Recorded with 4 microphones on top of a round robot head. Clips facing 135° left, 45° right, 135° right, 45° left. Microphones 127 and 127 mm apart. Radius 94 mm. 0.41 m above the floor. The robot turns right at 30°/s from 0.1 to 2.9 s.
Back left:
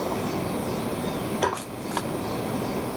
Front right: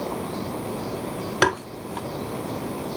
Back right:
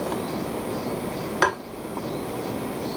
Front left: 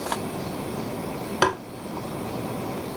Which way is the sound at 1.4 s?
30° right.